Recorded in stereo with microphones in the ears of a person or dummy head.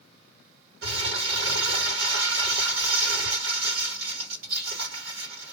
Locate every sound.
0.8 s crumpling: 75° right (ahead or behind), 1.7 m